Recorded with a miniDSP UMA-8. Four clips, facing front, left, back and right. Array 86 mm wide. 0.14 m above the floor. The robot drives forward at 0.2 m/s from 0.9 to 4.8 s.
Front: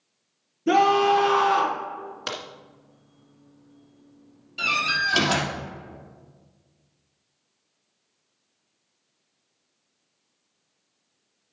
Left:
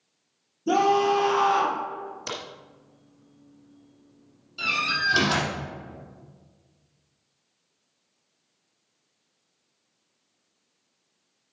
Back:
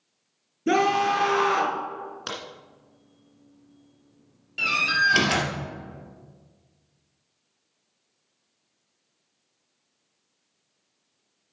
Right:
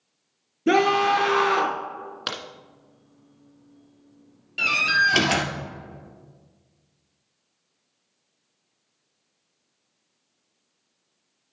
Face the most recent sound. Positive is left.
turn(degrees=-115)